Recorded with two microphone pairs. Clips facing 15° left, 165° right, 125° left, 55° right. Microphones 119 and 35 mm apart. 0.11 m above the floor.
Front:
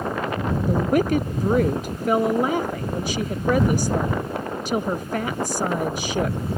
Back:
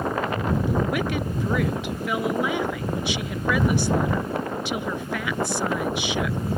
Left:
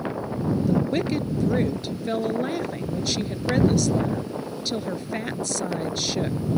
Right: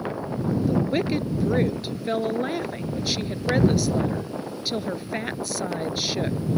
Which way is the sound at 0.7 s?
15° left.